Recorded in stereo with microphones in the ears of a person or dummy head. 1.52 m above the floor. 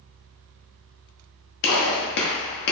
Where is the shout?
No shout in this recording.